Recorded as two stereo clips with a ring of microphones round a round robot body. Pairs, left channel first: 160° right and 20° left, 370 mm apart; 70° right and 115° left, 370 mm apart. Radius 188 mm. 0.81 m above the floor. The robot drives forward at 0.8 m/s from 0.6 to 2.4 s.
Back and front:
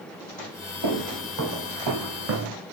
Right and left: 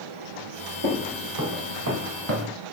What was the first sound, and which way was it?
Footsteps, 60° left.